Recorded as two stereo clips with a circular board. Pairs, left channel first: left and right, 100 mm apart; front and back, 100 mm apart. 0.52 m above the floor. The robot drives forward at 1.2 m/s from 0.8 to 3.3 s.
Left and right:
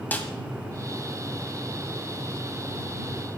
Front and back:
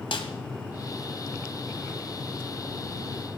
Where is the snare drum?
20° left, 1.8 m.